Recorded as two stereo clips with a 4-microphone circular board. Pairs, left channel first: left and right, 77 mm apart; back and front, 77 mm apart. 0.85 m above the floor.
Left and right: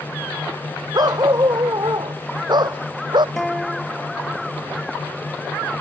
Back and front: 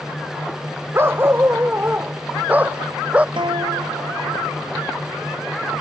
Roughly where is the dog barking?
Ahead right.